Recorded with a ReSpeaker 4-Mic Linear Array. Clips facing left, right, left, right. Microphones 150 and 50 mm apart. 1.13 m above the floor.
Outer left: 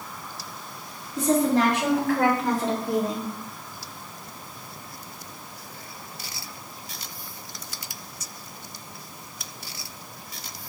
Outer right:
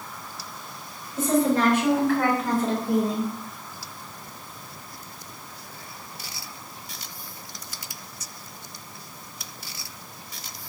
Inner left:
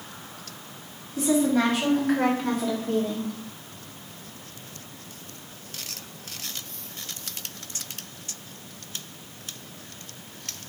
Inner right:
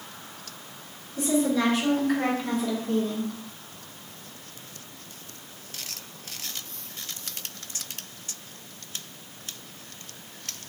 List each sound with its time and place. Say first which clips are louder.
1.2 s a woman speaking: even, inner left 2 dB; 80° left, 2 m; by 3.3 s 75° left (ahead or behind), 1.0 m